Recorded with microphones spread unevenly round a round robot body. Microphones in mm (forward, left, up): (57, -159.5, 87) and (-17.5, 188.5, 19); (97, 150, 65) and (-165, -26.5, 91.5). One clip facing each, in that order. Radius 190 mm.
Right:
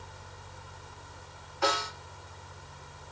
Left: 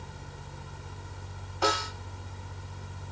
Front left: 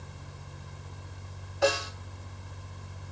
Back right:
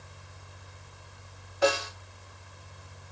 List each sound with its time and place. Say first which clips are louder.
1.6 s a snare drum: left 1 dB, back right 1 dB; 125° left, 2.5 m